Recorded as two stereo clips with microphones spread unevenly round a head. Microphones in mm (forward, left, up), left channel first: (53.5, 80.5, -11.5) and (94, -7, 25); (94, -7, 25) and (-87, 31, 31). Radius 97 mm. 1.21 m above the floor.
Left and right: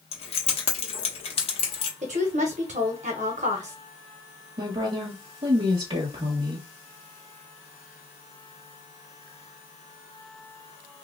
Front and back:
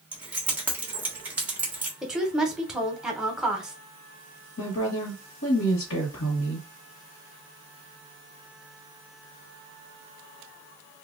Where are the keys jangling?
85° left, 1.2 m.